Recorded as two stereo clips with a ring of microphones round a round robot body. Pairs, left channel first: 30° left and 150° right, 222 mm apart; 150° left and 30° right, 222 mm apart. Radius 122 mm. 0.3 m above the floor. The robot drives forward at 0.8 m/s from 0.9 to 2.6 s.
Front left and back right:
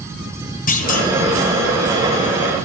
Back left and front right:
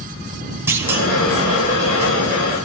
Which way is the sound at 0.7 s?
45° left.